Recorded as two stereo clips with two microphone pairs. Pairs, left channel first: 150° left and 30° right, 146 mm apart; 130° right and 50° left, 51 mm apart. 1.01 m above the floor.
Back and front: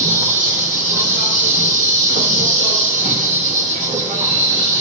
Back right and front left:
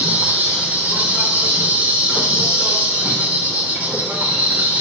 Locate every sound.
0.0 s an insect: straight ahead, 3 m